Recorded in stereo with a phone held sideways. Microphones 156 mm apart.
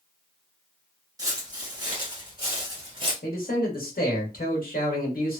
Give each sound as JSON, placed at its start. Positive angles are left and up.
{"t": 1.2, "sound": "footsteps", "side_deg": -25, "distance_m": 1.4}
{"t": 3.2, "sound": "a man speaking", "side_deg": 80, "distance_m": 1.2}